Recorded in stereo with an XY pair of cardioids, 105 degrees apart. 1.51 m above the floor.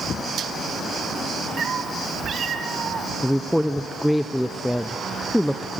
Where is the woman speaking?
5° left, 0.8 m.